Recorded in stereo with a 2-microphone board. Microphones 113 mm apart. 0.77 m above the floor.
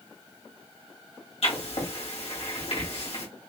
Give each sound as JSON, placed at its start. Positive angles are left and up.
{"t": 1.4, "sound": "writing", "side_deg": 70, "distance_m": 2.0}